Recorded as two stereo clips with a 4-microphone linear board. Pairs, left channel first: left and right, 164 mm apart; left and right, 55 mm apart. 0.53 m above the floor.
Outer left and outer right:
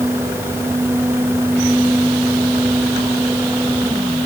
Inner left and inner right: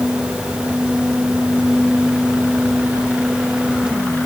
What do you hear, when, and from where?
Only background noise.